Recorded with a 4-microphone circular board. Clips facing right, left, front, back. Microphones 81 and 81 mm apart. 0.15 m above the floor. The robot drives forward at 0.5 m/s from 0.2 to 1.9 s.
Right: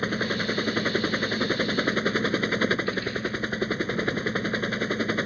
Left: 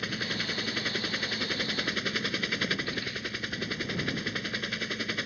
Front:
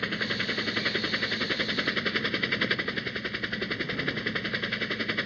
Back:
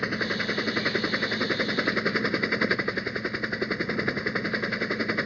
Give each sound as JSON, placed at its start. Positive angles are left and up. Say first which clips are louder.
{"t": 0.0, "sound": "a helicopter", "louder": "right 8 dB, back 3 dB", "azimuth_deg": -115}